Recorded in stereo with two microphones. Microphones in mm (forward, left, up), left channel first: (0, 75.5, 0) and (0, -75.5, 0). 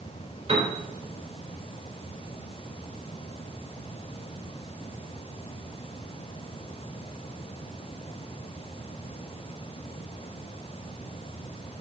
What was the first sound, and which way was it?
A piano, 45° right (ahead or behind).